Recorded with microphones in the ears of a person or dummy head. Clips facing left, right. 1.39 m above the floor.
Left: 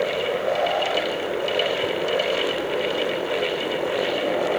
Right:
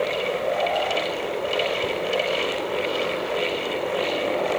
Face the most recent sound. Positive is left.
No sound to turn to.